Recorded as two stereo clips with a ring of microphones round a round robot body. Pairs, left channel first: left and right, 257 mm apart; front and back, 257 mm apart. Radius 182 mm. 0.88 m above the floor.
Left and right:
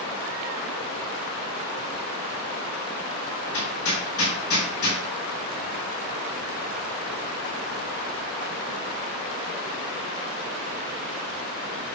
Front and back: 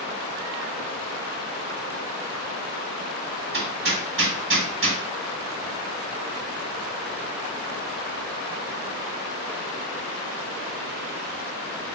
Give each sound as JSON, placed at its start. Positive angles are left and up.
{"t": 3.5, "sound": "hammering", "azimuth_deg": 140, "distance_m": 3.5}